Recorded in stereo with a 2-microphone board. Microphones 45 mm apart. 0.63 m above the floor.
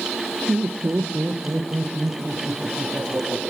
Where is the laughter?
60° right (ahead or behind), 1.3 m; by 3.4 s 45° right (ahead or behind), 5 m.